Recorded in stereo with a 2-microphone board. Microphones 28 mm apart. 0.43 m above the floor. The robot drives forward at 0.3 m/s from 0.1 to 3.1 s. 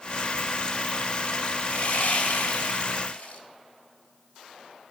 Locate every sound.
1.6 s sawing: 55° left (ahead or behind), 0.6 m; by 3.4 s 60° left (ahead or behind), 0.5 m